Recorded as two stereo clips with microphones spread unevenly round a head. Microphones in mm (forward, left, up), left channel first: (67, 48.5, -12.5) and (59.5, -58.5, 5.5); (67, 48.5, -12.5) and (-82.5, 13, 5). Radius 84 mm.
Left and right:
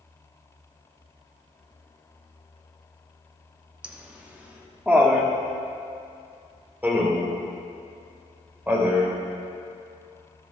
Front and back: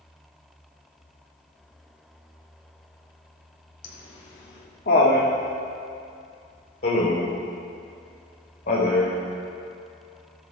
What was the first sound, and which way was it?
Laughter, 15° right.